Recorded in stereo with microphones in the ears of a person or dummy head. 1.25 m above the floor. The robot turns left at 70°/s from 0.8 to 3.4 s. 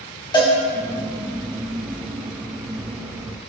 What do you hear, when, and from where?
0.3 s a cowbell: 20° left (ahead or behind), 2 m